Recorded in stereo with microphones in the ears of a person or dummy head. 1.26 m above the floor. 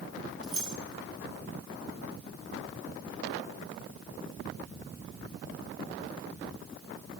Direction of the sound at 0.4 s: 5° right (ahead or behind).